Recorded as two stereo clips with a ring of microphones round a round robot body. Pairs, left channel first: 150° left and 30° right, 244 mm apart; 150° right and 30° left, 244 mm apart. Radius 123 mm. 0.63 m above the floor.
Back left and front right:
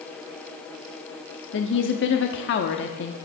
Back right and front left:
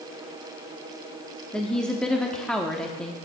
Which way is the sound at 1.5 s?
125° left.